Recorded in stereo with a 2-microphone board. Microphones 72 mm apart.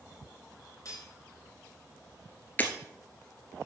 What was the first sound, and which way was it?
Cutlery clinking, 50° left (ahead or behind).